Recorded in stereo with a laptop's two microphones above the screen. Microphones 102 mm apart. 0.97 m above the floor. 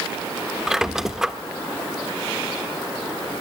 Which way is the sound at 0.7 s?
5° right (ahead or behind).